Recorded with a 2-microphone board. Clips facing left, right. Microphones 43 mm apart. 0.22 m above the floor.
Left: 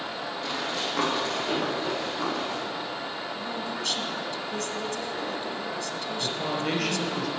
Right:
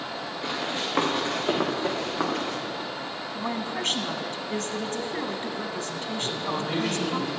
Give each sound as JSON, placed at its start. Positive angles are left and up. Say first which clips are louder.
{"t": 0.4, "sound": "running footsteps", "louder": "right 1 dB", "side_deg": -30, "distance_m": 6.5}
{"t": 3.3, "sound": "a woman speaking", "louder": "right 2 dB", "side_deg": -40, "distance_m": 1.4}
{"t": 6.2, "sound": "a man speaking", "louder": "left 1 dB", "side_deg": 75, "distance_m": 4.5}